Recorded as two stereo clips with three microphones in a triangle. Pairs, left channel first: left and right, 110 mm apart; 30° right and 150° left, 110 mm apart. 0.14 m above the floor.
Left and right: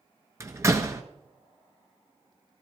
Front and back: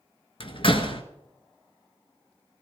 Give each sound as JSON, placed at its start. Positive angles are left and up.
{"t": 0.4, "sound": "a door slam", "azimuth_deg": -30, "distance_m": 1.3}